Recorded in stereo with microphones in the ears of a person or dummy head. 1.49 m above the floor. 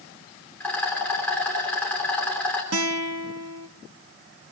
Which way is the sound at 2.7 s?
85° right.